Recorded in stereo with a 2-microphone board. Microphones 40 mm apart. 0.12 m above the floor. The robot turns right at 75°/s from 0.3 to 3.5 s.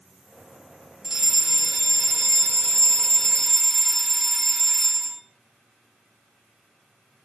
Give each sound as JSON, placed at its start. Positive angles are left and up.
{"t": 1.0, "sound": "a fire alarm", "side_deg": -15, "distance_m": 2.5}